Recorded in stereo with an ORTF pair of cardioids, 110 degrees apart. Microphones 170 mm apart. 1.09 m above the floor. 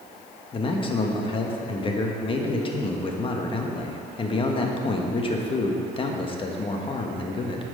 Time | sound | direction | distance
0.5 | a man speaking | 30° left | 1.3 m